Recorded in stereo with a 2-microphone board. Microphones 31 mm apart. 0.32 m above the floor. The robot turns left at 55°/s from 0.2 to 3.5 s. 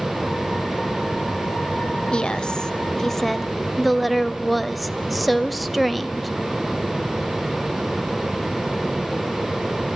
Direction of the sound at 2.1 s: 75° left.